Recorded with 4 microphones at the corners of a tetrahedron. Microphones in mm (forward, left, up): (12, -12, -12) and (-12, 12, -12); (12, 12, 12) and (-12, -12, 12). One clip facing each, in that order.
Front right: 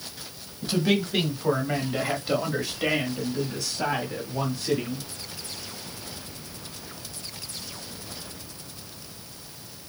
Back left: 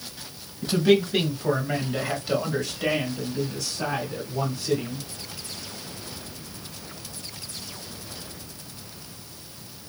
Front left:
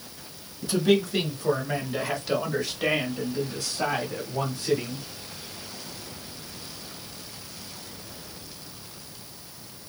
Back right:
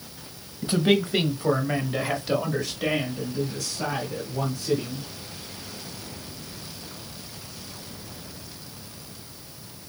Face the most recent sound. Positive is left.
turn(degrees=15)